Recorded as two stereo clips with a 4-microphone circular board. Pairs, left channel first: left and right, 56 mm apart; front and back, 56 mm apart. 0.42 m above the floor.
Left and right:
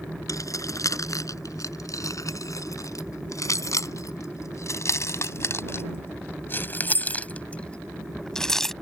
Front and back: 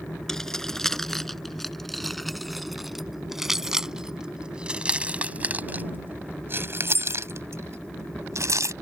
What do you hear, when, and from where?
0.3 s keys jangling: 80° left; by 8.7 s 175° left